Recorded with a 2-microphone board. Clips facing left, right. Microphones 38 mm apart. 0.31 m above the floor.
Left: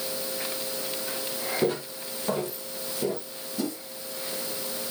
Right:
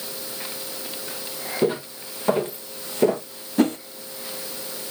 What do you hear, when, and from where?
1.6 s footsteps: 15° right (ahead or behind), 1.8 m; by 3.3 s 60° right (ahead or behind), 1.3 m
3.6 s a whoosh: 50° right (ahead or behind), 0.5 m